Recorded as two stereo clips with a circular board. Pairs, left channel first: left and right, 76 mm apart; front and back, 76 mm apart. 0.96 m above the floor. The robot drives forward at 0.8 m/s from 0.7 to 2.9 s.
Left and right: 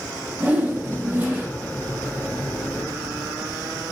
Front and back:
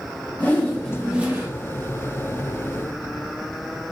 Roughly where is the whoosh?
Ahead right.